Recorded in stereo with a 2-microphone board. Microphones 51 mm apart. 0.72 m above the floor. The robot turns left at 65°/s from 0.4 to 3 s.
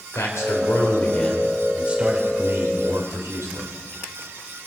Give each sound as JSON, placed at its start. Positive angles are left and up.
{"t": 0.1, "sound": "a man speaking", "azimuth_deg": 75, "distance_m": 2.5}